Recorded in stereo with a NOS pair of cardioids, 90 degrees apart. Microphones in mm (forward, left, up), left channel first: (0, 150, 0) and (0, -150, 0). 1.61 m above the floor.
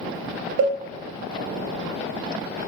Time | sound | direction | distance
0.6 | a cowbell | 55° right | 0.5 m